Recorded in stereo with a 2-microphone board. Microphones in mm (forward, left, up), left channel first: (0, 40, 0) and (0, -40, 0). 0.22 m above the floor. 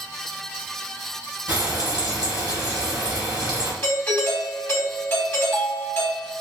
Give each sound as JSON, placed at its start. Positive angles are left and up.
{"t": 1.5, "sound": "frying", "side_deg": -60, "distance_m": 1.7}
{"t": 3.8, "sound": "a doorbell", "side_deg": 25, "distance_m": 1.5}